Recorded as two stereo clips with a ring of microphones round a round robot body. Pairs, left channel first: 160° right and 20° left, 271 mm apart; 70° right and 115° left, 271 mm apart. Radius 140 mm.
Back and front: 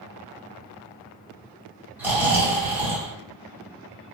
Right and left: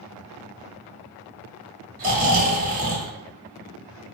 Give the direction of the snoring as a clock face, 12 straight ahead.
9 o'clock.